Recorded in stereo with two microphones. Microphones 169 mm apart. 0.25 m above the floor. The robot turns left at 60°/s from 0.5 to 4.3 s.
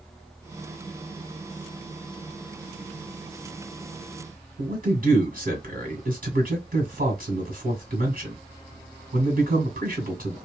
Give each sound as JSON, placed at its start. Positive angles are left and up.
{"t": 4.6, "sound": "a man speaking", "side_deg": -50, "distance_m": 2.0}